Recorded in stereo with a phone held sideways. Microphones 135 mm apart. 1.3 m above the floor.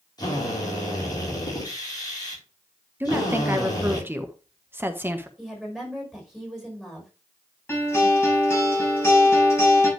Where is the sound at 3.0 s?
15° right (ahead or behind), 1.3 m.